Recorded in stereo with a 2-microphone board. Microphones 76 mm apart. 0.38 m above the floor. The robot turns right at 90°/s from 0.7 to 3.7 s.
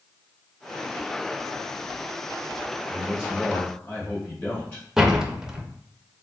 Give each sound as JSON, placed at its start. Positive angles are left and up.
{"t": 2.9, "sound": "a man speaking", "azimuth_deg": -35, "distance_m": 1.8}
{"t": 5.0, "sound": "a door slam", "side_deg": -10, "distance_m": 0.5}